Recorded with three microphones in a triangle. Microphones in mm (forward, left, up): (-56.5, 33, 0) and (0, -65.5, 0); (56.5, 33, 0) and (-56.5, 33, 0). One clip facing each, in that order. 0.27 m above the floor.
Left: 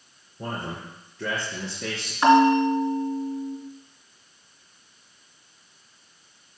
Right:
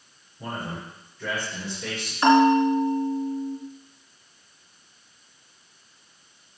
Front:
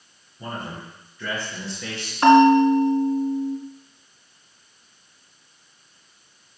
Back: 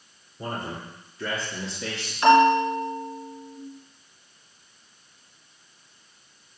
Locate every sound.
0.4 s a man speaking: 130° left, 3 m; by 2.1 s 105° left, 3.5 m
2.2 s a bell: 45° left, 2.5 m